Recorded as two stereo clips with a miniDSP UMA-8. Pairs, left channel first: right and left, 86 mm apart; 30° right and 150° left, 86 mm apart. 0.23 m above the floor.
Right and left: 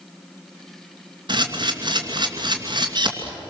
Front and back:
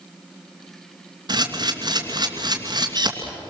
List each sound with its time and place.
1.3 s a camera shutter: 115° left, 2.5 m